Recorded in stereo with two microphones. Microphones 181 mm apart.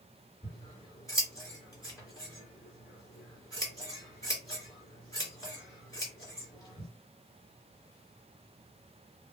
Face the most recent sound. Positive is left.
turn(degrees=20)  # may be behind; listen again after turning